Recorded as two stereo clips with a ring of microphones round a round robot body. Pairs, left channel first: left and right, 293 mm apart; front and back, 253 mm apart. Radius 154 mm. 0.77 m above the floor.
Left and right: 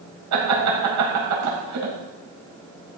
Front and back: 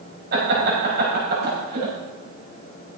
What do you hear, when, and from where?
0.3 s laughter: 120° right, 5.5 m